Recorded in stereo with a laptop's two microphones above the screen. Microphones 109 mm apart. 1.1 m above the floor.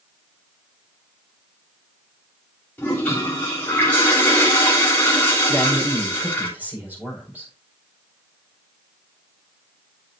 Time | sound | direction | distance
2.8 | a toilet flushing | 15° left (ahead or behind) | 3.5 m
5.5 | a man speaking | 15° right (ahead or behind) | 4.5 m